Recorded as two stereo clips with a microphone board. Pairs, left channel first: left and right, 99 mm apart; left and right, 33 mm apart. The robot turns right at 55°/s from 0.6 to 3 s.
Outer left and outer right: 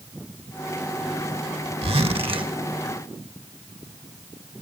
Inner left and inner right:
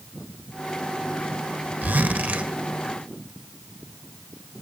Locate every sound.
1.8 s a zipper: 95° right, 1.5 m; by 2.5 s 55° right, 1.5 m